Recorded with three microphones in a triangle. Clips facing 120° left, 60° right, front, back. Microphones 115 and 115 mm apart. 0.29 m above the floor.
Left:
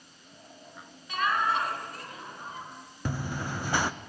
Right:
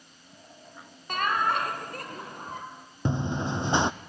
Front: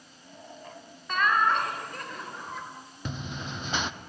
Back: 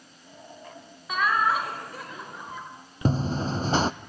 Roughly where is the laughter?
Right.